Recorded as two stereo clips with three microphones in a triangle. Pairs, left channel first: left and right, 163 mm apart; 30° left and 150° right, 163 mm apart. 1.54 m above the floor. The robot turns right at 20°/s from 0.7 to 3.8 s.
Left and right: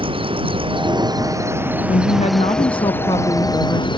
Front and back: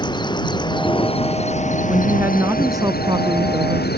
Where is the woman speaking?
130° left; by 3.9 s 165° left.